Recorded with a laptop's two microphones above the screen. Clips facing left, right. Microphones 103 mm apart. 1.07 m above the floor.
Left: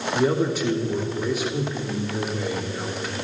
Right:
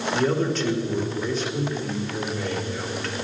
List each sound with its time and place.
0.1 s a man speaking: 10° left (ahead or behind), 2.5 m